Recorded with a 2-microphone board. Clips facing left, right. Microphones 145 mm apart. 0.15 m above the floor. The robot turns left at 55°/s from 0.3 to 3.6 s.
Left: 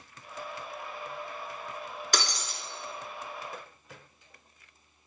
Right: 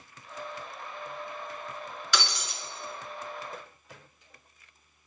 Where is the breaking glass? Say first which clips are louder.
Right 1 dB; 45° left (ahead or behind), 1.1 m; by 2.6 s 40° left (ahead or behind), 1.1 m.